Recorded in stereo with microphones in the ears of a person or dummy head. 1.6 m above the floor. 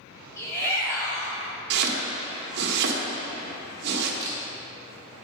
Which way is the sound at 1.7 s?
65° right (ahead or behind).